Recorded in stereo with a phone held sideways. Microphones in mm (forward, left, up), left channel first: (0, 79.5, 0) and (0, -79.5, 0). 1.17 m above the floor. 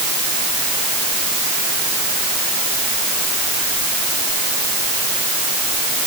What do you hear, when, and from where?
Only background noise.